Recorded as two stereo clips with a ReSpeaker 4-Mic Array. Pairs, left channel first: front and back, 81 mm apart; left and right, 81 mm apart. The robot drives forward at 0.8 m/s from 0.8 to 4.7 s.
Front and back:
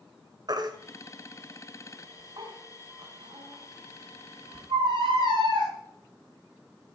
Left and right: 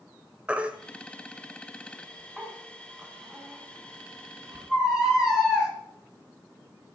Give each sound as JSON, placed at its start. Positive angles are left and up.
{"t": 0.5, "sound": "a baby crying", "azimuth_deg": -165, "distance_m": 1.6}